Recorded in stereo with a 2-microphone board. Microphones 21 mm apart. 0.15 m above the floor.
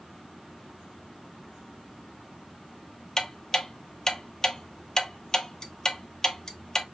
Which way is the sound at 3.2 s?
25° left (ahead or behind).